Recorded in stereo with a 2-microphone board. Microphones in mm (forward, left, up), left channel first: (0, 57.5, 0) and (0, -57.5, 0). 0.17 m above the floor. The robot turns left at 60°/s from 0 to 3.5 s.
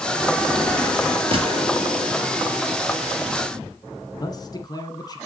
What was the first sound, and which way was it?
A gunshot, 50° right (ahead or behind).